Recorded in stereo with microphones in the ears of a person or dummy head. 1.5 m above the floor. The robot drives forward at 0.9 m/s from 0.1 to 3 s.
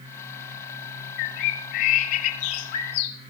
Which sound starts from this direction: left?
A bird, at 1.2 s.